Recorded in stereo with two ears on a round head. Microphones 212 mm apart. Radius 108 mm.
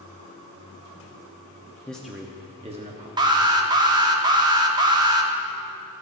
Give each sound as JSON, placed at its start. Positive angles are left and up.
{"t": 1.9, "sound": "a man speaking", "side_deg": 5, "distance_m": 0.6}
{"t": 3.2, "sound": "an alarm", "side_deg": -20, "distance_m": 0.6}